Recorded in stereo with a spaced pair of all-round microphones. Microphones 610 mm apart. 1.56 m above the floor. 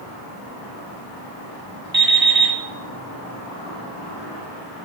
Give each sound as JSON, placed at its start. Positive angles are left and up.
{"t": 1.9, "sound": "an alarm clock", "side_deg": -35, "distance_m": 3.0}